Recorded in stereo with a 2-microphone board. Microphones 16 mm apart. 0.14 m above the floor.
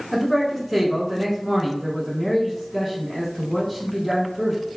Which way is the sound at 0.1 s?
5° left (ahead or behind).